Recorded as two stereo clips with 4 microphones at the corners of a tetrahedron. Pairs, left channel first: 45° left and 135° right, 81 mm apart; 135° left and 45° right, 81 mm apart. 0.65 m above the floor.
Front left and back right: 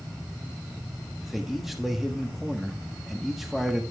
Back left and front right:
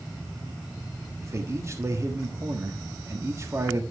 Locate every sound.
1.2 s a man speaking: 50° right, 1.1 m